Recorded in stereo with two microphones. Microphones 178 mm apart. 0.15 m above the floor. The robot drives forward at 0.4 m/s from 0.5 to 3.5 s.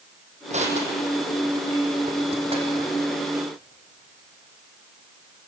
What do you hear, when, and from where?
0.5 s crushing: 40° right (ahead or behind), 3.5 m; by 2.9 s 35° right (ahead or behind), 4.5 m